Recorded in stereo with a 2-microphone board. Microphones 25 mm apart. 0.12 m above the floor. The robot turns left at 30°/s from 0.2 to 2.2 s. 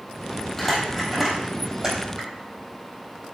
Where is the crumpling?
10° left (ahead or behind), 4 m; by 2.3 s 35° right (ahead or behind), 4 m.